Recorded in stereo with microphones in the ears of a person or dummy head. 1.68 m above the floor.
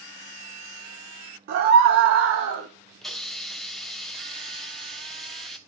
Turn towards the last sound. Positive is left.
turn(degrees=0)  # may be behind; listen again after turning